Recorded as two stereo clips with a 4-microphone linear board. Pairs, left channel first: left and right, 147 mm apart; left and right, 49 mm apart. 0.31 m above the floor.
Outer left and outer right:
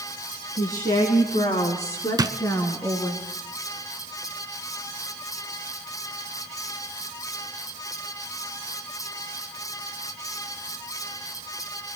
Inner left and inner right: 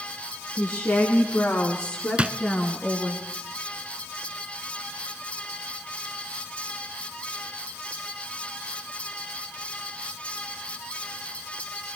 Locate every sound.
0.6 s a woman speaking: 65° left (ahead or behind), 3.5 m; by 3.2 s 15° left (ahead or behind), 3.5 m
2.2 s a drawer: 25° right (ahead or behind), 0.7 m